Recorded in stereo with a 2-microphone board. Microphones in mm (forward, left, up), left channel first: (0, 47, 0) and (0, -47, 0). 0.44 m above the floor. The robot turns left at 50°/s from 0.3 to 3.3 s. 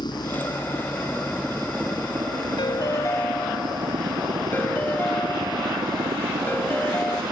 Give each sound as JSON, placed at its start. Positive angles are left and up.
{"t": 0.0, "sound": "a helicopter", "azimuth_deg": 55}
{"t": 2.6, "sound": "a ringtone", "azimuth_deg": 60}